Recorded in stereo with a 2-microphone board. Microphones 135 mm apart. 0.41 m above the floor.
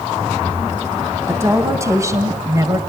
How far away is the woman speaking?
About 3 m.